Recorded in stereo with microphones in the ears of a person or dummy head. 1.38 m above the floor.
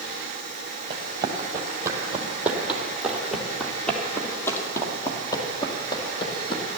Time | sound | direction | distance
0.9 | running footsteps | 30° right (ahead or behind) | 3 m